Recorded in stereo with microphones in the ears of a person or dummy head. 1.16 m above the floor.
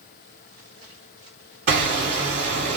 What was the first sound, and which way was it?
Hammering, 50° right (ahead or behind).